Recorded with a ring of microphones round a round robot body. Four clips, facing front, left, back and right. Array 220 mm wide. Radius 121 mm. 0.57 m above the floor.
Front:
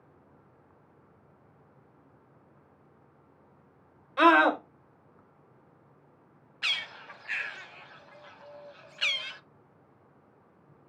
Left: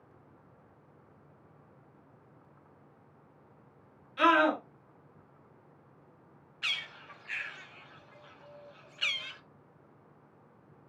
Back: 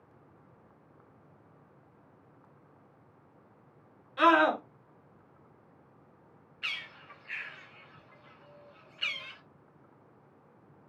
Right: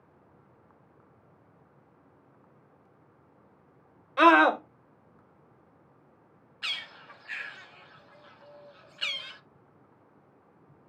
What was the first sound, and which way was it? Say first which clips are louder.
A scream: right 6 dB, front 3 dB; 60° right.